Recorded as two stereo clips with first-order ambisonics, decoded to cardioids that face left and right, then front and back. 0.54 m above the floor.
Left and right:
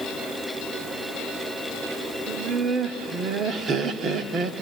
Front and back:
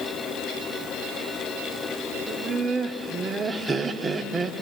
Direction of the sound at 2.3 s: 120° right.